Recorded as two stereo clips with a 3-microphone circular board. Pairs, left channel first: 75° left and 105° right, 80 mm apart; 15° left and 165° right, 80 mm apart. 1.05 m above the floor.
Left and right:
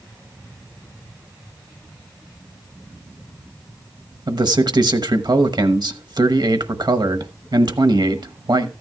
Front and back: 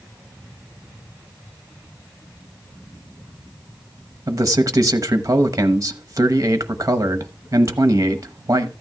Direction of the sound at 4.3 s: 120° right.